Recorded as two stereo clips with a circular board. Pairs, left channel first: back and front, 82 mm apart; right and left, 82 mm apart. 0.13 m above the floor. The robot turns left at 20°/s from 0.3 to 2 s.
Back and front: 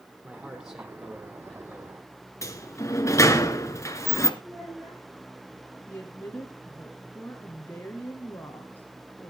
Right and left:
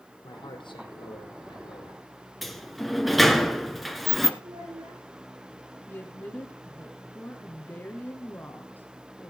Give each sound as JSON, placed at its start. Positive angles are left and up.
{"t": 0.2, "sound": "a man speaking", "azimuth_deg": -70, "distance_m": 4.0}
{"t": 2.4, "sound": "a sliding door", "azimuth_deg": 180, "distance_m": 1.2}
{"t": 4.4, "sound": "a child speaking", "azimuth_deg": 95, "distance_m": 7.0}
{"t": 5.9, "sound": "a woman speaking", "azimuth_deg": -135, "distance_m": 1.7}